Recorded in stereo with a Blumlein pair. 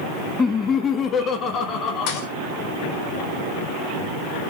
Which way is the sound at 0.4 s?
15° left.